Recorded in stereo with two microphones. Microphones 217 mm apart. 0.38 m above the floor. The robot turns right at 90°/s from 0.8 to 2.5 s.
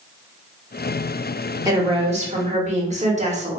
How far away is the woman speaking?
About 1.0 m.